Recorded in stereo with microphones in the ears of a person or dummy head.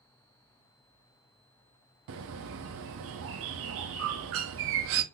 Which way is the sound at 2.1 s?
70° right (ahead or behind).